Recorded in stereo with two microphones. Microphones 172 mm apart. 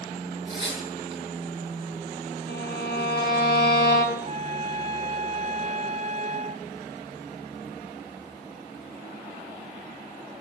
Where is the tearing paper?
35° right (ahead or behind), 9 m.